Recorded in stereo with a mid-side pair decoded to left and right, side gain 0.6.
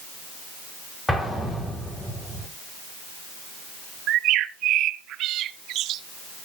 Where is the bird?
60° right, 0.7 m.